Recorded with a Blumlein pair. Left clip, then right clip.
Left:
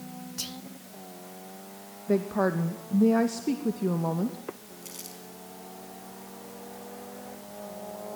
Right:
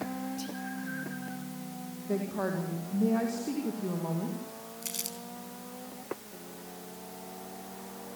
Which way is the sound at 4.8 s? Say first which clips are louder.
Right 5 dB; 20° right.